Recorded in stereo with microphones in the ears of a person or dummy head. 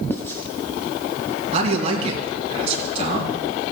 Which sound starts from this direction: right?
A man speaking, at 1.5 s.